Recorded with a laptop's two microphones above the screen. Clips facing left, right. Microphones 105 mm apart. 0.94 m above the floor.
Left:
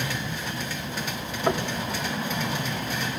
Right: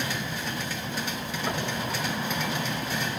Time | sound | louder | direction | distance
1.5 | knocking | left 6 dB | 65° left (ahead or behind) | 1.4 m